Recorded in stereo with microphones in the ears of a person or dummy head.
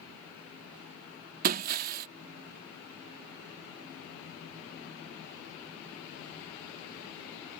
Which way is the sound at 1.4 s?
45° right (ahead or behind).